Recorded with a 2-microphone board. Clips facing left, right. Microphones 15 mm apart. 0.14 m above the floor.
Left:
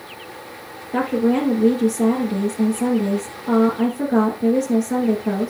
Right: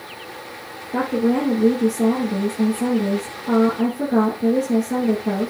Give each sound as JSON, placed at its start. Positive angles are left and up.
{"t": 0.9, "sound": "a woman speaking", "side_deg": 35, "distance_m": 1.7}